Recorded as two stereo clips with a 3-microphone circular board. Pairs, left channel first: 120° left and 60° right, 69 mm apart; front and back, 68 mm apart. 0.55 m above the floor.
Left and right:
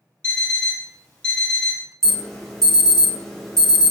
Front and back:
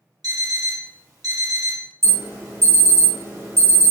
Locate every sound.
0.2 s an alarm clock: 165° right, 1.3 m
2.0 s an alarm: 165° right, 1.0 m